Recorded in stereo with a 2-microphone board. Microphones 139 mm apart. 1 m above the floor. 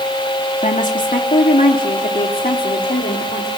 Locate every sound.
0.6 s a woman speaking: 60° left (ahead or behind), 2 m; by 3.5 s 70° left (ahead or behind), 3.5 m